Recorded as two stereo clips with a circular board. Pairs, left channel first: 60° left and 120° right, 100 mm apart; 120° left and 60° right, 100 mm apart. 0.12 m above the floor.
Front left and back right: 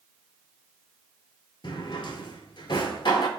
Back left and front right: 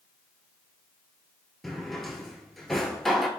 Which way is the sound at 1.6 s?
30° left.